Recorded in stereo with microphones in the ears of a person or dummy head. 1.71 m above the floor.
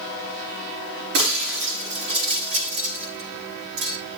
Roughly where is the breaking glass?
Right.